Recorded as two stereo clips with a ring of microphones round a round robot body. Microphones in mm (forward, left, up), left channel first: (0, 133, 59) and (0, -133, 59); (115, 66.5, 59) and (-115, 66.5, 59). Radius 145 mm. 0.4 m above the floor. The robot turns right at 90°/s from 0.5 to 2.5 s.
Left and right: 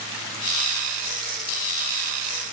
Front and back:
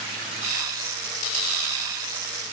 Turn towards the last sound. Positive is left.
No sound to turn to.